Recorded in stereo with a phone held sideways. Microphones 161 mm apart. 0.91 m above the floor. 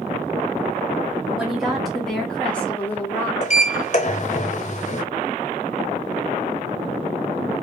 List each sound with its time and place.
1.4 s a woman speaking: centre (ahead or behind), 2.5 m; by 3.3 s 15° left (ahead or behind), 1.4 m
3.4 s a sliding door: 45° left (ahead or behind), 0.8 m